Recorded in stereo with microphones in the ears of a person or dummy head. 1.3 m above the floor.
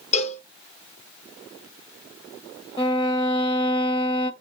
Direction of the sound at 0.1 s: 45° left (ahead or behind).